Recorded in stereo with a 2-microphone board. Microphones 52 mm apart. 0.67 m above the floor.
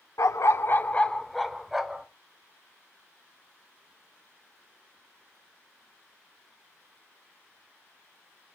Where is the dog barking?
85° left, 0.6 m; by 2.1 s 10° right (ahead or behind), 1.3 m.